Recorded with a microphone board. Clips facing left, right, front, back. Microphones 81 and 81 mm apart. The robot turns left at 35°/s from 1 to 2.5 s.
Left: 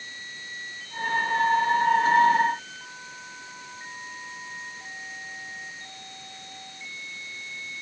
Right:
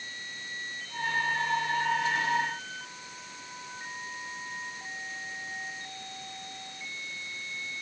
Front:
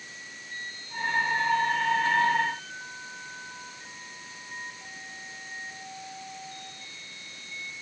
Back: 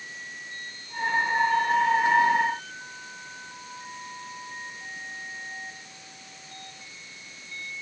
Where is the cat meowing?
No cat meowing in this recording.